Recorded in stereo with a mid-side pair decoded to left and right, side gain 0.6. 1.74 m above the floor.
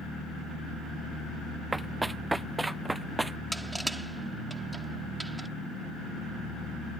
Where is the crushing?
10° right.